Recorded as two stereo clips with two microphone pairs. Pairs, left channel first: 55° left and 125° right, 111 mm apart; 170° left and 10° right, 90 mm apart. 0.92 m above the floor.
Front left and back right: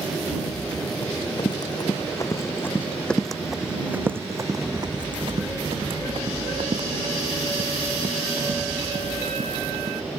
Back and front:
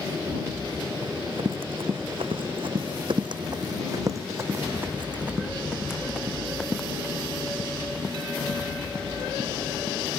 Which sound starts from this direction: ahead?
Running footsteps, at 1.0 s.